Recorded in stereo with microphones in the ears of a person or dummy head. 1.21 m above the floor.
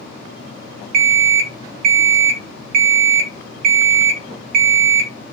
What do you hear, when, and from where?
0.9 s an alarm clock: 60° right (ahead or behind), 0.7 m